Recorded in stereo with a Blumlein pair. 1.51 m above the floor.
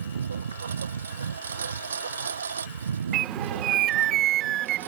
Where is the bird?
35° right.